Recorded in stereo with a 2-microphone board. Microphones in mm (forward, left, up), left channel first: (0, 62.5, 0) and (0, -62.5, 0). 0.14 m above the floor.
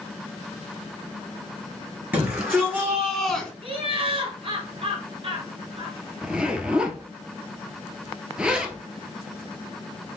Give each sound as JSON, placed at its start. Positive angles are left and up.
{"t": 2.1, "sound": "a shout", "side_deg": -15, "distance_m": 1.6}
{"t": 3.6, "sound": "laughter", "side_deg": -50, "distance_m": 1.8}
{"t": 6.2, "sound": "a zipper", "side_deg": -5, "distance_m": 0.7}